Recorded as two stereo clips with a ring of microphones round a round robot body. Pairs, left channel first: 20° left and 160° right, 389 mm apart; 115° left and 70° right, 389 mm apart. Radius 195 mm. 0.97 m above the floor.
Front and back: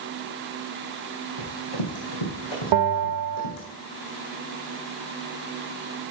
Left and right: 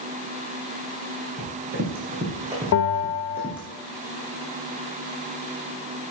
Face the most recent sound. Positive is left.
turn(degrees=170)